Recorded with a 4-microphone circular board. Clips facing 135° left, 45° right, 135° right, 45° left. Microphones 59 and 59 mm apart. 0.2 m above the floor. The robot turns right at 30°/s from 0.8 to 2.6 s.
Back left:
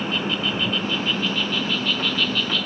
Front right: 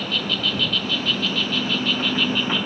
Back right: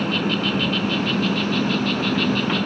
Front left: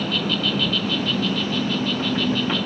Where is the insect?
170° right; by 2.7 s 115° right.